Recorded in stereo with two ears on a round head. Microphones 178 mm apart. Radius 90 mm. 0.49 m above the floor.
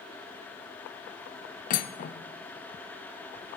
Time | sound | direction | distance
1.7 | cutlery clinking | 45° left (ahead or behind) | 0.6 m